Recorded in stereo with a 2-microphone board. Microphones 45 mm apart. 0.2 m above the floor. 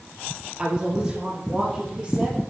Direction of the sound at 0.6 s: 10° right (ahead or behind).